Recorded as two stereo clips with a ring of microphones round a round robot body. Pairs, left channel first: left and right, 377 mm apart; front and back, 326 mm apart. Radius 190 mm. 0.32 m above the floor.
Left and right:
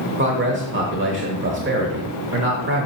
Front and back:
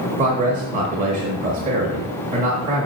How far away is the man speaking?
About 1.0 m.